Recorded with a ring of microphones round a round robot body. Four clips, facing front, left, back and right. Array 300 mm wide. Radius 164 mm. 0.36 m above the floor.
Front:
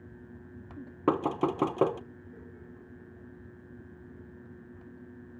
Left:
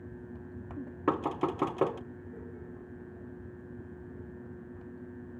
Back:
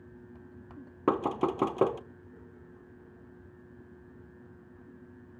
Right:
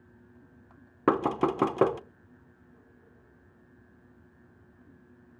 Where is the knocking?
85° right, 1.0 m.